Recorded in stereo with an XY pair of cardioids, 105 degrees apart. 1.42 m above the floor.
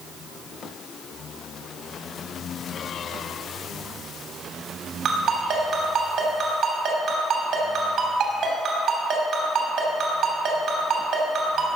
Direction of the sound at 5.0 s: 70° right.